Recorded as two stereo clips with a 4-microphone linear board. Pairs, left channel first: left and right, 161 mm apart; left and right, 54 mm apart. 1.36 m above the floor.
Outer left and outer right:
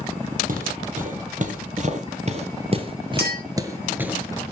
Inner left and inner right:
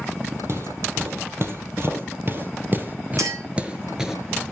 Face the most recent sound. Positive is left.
turn(degrees=-80)